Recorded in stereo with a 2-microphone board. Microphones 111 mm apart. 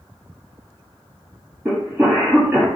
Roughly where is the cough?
Centre.